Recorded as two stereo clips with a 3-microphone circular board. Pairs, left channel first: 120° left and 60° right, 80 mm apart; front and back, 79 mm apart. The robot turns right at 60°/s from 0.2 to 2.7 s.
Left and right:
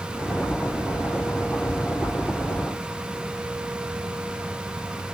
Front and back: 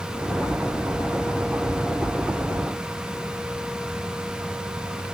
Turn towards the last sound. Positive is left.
No sound to turn to.